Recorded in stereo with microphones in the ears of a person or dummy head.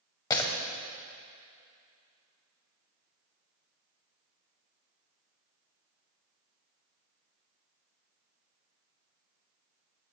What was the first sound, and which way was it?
Breaking glass, 20° left (ahead or behind).